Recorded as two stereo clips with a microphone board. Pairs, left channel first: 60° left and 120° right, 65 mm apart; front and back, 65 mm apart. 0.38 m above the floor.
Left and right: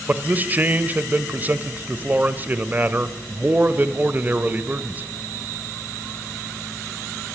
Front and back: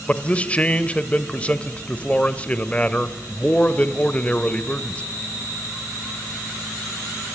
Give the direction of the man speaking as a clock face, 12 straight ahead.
2 o'clock.